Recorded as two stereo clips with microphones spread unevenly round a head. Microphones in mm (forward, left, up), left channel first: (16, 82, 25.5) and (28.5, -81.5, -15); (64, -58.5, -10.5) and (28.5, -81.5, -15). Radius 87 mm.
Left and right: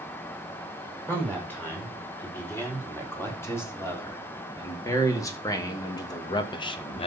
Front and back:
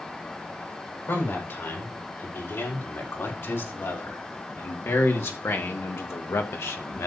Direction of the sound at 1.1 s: 20° left.